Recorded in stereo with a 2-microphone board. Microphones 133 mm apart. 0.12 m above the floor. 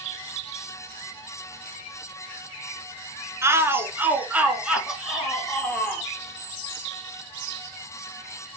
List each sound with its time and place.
3.4 s a shout: 20° right (ahead or behind), 1.3 m; by 6.1 s 5° left (ahead or behind), 1.9 m